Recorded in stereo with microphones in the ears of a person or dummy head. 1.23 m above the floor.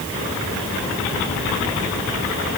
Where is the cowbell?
I don't hear a cowbell.